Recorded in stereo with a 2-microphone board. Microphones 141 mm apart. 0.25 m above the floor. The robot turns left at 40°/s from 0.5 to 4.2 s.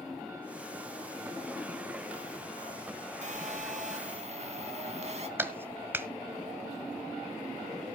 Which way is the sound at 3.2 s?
75° right.